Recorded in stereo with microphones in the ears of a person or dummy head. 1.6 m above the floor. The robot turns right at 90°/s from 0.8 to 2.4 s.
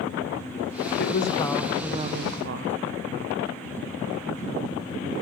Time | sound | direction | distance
1.0 | a woman speaking | 115° left | 0.8 m